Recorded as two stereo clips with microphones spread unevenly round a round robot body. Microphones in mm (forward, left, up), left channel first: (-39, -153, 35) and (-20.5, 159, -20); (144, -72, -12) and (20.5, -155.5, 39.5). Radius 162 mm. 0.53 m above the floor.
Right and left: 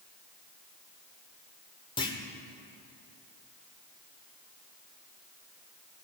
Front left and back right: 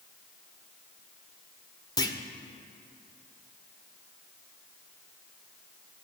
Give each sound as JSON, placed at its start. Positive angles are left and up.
{"t": 2.0, "sound": "a clunk", "azimuth_deg": -15, "distance_m": 1.3}